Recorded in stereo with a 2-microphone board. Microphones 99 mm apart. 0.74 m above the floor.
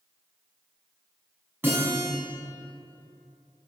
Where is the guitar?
20° right (ahead or behind), 6 m.